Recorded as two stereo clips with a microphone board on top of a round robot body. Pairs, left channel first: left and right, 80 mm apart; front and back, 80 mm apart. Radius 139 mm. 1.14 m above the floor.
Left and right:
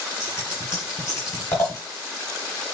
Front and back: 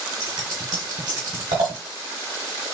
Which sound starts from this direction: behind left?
Scissors, at 0.2 s.